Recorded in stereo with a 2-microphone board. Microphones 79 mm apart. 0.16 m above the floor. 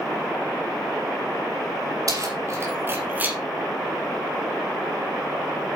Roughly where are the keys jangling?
Right.